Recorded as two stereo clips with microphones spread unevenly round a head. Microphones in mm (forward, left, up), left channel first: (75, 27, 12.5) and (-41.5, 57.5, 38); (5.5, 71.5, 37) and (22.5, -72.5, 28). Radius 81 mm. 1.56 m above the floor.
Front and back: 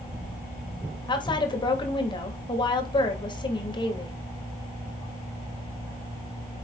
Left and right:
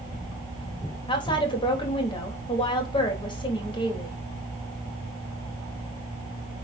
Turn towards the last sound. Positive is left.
turn(degrees=40)